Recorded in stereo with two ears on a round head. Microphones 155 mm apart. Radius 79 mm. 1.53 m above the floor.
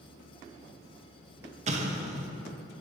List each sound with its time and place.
1.7 s an explosion: 40° right (ahead or behind), 0.6 m